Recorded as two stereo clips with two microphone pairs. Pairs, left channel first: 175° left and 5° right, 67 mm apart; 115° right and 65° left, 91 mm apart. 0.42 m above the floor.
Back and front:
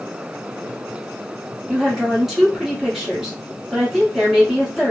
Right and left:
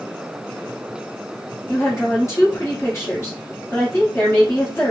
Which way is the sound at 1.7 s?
90° right.